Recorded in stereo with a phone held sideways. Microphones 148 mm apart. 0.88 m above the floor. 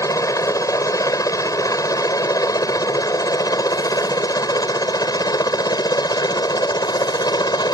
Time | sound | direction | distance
0.0 | a helicopter | 25° left (ahead or behind) | ?